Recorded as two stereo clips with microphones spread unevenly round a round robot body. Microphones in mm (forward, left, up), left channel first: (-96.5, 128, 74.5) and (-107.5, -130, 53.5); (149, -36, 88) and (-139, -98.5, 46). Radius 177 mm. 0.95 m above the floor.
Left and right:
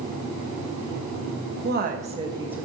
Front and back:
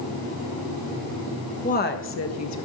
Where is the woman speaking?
55° right, 1.4 m; by 2.6 s 5° right, 1.5 m.